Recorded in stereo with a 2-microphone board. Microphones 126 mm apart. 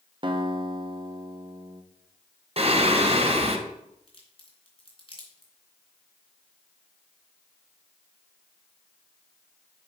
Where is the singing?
50° right (ahead or behind), 0.9 m.